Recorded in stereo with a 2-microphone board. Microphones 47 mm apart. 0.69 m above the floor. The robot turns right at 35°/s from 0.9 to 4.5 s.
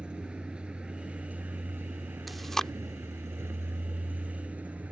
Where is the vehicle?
160° right; by 4.9 s 30° right.